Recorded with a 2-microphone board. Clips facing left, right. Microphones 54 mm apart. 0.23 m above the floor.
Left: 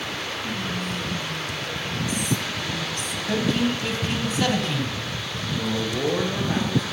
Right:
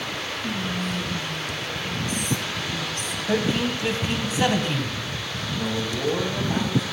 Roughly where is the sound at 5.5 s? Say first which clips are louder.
Left 2 dB; left.